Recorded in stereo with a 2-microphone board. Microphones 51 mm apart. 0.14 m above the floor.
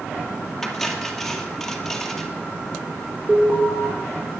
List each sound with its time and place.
0.6 s cutlery clinking: 5° left (ahead or behind), 2 m
3.3 s an alarm: 30° right (ahead or behind), 4 m